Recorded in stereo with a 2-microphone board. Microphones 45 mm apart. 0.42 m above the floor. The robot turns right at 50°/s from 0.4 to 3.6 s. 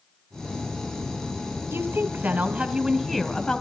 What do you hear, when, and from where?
1.7 s a woman speaking: 75° right, 2.5 m; by 3.6 s 20° left, 2.5 m